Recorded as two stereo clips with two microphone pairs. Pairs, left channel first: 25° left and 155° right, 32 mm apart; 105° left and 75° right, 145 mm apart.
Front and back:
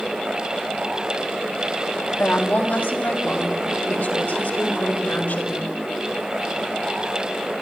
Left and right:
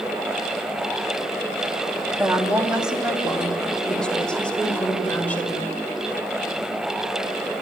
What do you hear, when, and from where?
2.2 s a woman speaking: straight ahead, 2.5 m; by 5.7 s 30° left, 5.5 m